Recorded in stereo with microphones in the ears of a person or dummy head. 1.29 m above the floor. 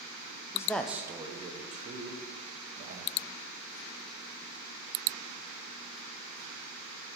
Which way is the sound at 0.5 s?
20° left (ahead or behind).